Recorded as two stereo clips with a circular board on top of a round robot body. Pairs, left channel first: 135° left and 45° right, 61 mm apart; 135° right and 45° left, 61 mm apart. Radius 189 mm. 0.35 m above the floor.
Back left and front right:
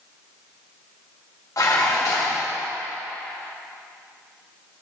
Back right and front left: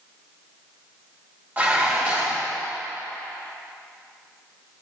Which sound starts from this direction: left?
Dishes clattering, at 1.6 s.